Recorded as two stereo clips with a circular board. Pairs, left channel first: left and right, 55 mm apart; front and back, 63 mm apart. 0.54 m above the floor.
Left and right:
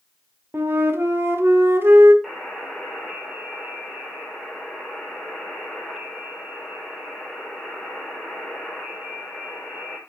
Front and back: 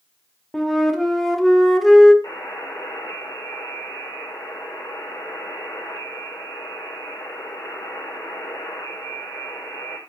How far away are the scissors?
No scissors in this recording.